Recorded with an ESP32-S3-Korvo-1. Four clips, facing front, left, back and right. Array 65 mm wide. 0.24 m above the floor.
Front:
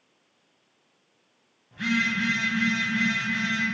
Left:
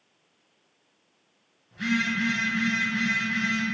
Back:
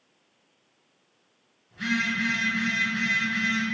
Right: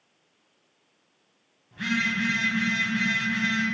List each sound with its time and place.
1.7 s a phone buzzing: 50° right, 1.5 m